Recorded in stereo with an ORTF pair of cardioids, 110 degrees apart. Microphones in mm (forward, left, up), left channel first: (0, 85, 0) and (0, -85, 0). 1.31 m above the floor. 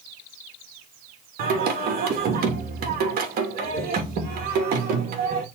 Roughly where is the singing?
Ahead right.